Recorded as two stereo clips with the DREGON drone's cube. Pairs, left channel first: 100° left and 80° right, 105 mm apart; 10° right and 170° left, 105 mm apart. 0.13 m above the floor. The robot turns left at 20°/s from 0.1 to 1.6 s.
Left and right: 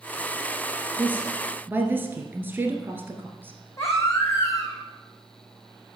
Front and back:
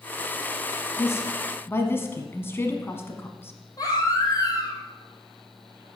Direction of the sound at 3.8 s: 40° left.